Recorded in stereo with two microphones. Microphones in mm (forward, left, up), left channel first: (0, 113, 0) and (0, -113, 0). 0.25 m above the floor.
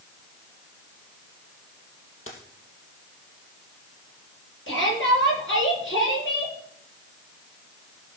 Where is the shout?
60° left (ahead or behind), 6.5 m.